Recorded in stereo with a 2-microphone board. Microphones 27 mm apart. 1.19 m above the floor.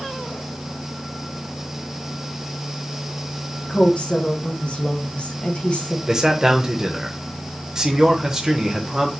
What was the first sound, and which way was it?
A woman speaking, 50° left (ahead or behind).